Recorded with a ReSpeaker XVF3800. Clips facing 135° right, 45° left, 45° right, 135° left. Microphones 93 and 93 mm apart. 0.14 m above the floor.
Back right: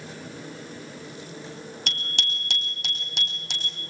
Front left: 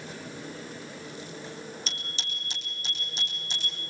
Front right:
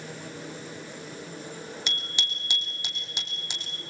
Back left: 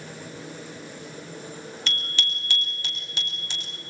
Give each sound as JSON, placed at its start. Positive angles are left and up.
{"t": 1.9, "sound": "a bicycle bell", "azimuth_deg": -115, "distance_m": 2.0}